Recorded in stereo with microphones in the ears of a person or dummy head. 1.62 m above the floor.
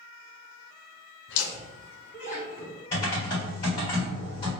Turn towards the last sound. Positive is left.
turn(degrees=25)  # may be behind; listen again after turning